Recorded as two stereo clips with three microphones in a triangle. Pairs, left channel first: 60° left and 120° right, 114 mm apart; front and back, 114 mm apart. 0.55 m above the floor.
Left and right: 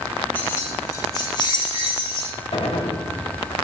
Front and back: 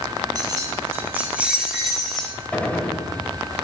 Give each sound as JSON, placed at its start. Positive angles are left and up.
{"t": 0.3, "sound": "keys jangling", "azimuth_deg": 130, "distance_m": 2.0}
{"t": 2.5, "sound": "a gunshot", "azimuth_deg": 75, "distance_m": 1.5}